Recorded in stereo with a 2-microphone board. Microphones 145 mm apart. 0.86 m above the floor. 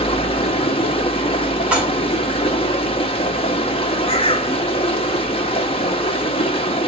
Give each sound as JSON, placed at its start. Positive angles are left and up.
{"t": 0.0, "sound": "running water", "side_deg": 35, "distance_m": 1.1}
{"t": 1.7, "sound": "dishes clattering", "side_deg": -10, "distance_m": 2.0}
{"t": 4.1, "sound": "a bird", "side_deg": 35, "distance_m": 0.7}